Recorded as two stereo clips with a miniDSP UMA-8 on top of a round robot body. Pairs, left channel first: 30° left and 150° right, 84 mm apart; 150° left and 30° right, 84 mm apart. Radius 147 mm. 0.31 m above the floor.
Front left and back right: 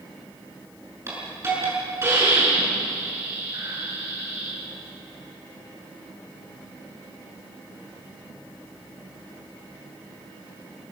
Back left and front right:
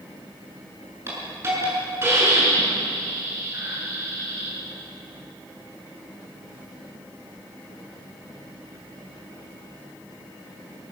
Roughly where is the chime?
I don't hear a chime.